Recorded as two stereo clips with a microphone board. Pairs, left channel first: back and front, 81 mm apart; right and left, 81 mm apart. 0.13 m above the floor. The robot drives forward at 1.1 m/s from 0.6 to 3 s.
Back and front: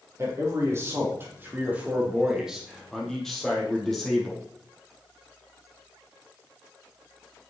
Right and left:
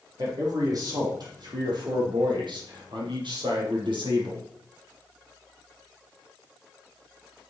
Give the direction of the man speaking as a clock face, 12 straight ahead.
10 o'clock.